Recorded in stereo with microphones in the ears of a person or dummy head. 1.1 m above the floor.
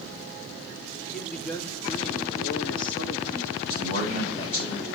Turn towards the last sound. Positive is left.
turn(degrees=55)  # may be behind; listen again after turning